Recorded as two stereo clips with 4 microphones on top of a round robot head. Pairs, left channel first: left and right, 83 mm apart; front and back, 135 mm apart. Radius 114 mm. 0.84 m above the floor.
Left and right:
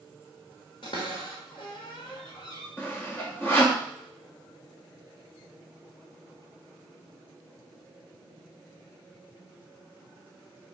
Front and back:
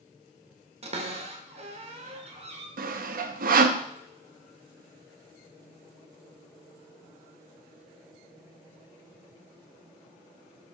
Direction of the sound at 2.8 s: 165° left.